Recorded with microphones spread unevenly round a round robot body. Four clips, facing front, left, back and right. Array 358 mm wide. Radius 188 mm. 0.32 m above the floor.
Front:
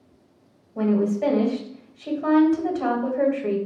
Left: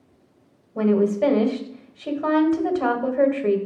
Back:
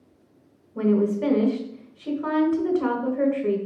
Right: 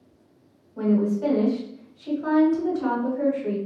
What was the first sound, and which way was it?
A woman speaking, 105° left.